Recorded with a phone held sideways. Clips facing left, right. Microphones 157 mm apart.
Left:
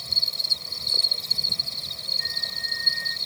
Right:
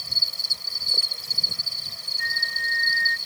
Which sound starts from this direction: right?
A flute, at 2.2 s.